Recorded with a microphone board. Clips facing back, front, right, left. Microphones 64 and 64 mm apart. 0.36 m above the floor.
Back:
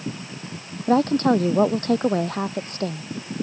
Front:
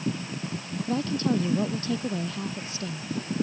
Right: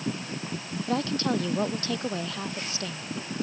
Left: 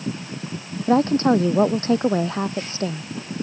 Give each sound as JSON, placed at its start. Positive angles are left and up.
{"t": 0.9, "sound": "a woman speaking", "azimuth_deg": 145}